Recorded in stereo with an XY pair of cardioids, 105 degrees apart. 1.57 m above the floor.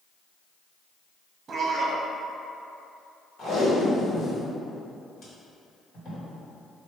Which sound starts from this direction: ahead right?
A man speaking, at 1.5 s.